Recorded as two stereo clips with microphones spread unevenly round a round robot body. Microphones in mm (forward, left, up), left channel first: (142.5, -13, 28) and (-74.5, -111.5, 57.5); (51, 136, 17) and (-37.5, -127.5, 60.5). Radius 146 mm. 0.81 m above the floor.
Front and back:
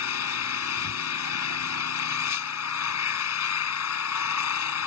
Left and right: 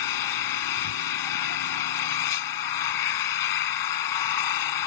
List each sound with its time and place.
0.0 s an engine running: 65° left